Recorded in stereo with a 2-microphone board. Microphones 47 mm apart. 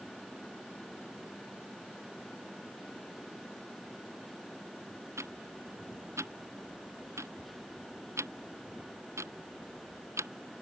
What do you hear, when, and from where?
5.2 s ticking: 85° right